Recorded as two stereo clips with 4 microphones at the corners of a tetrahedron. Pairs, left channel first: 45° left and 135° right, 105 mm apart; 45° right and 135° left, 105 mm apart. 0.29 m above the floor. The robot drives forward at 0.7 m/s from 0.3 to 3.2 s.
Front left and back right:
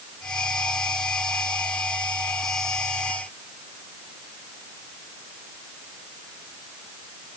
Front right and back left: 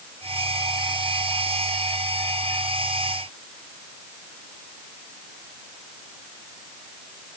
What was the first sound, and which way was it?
Only background noise.